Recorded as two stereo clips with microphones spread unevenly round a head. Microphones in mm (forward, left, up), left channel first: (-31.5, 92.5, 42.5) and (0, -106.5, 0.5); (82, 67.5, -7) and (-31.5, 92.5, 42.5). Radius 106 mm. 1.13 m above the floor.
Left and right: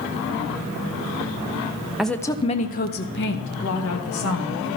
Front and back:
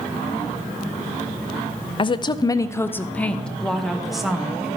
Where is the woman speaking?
Straight ahead, 0.6 m; by 4.8 s 80° left, 1.7 m.